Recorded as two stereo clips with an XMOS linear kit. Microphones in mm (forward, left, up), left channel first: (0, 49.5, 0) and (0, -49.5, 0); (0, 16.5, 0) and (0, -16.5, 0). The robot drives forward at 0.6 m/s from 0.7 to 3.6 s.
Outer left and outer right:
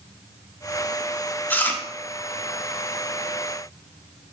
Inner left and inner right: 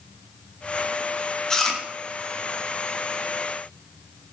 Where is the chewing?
15° left (ahead or behind), 1.1 m; by 1.8 s 20° left (ahead or behind), 1.1 m.